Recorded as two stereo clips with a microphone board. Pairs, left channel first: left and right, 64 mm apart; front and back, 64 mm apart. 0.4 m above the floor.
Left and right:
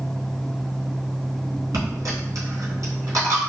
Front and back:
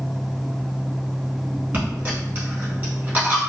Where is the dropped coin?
120° right, 1.2 m.